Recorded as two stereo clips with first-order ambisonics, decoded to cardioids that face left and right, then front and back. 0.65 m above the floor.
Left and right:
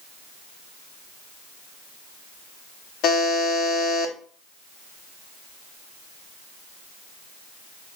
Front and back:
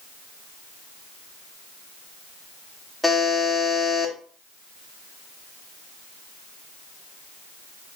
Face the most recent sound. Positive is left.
turn(degrees=90)